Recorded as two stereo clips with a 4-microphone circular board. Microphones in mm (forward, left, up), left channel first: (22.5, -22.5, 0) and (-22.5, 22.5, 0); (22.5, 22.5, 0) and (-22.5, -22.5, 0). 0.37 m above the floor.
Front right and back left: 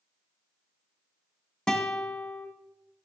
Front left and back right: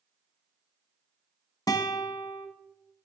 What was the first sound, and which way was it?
A guitar, 35° left.